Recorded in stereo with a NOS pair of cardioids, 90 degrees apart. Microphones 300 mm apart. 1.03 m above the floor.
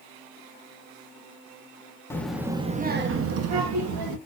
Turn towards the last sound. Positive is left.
turn(degrees=-75)